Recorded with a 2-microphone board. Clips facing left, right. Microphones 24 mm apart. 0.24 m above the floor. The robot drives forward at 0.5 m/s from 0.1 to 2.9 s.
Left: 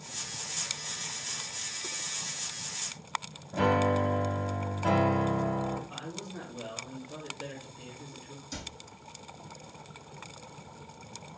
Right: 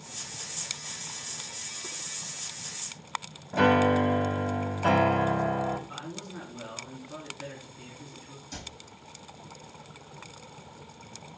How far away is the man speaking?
About 3 m.